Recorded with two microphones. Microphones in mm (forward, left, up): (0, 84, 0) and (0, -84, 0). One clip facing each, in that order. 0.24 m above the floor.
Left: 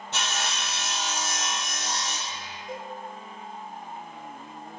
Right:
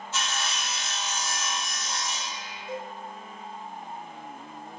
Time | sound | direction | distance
0.1 | sawing | 75° left (ahead or behind) | 3.5 m
2.7 | a cowbell | 5° right (ahead or behind) | 4.5 m